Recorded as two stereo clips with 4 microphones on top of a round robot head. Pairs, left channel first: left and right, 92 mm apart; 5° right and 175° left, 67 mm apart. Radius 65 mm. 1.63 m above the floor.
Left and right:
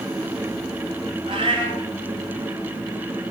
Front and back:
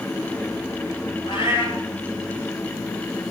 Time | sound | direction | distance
1.2 | a cat meowing | 40° right | 4 m